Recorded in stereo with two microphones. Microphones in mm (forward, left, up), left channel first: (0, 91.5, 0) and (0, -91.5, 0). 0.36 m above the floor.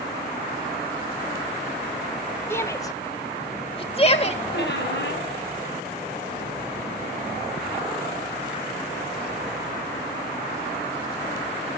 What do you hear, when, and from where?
2.5 s a shout: 15° left (ahead or behind), 1.2 m; by 4.4 s 35° left (ahead or behind), 1.3 m
4.5 s a squeak: 75° left (ahead or behind), 1.8 m